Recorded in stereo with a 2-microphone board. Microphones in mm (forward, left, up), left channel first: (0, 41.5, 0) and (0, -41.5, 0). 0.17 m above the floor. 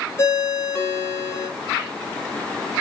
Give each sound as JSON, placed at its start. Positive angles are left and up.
{"t": 0.2, "sound": "a ringtone", "side_deg": 30, "distance_m": 0.6}